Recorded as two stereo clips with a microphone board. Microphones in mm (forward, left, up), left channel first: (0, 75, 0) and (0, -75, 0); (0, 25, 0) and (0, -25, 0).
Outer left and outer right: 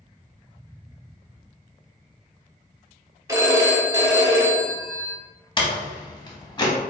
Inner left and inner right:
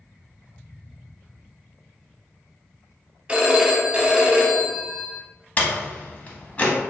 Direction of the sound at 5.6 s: 30° left (ahead or behind).